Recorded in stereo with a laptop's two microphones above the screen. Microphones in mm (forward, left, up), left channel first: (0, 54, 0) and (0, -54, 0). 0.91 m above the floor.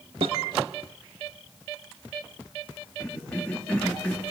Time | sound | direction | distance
0.2 | a snare drum | 65° right (ahead or behind) | 1.8 m
3.0 | a cough | 10° left (ahead or behind) | 1.9 m